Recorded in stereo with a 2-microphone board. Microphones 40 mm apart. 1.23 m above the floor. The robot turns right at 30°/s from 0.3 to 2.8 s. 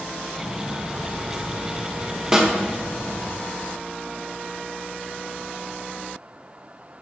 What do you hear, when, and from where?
0.4 s footsteps: 35° right (ahead or behind), 1.8 m; by 3.3 s 10° right (ahead or behind), 1.3 m
2.3 s a snare drum: 15° right (ahead or behind), 0.9 m; by 2.5 s 20° right (ahead or behind), 0.9 m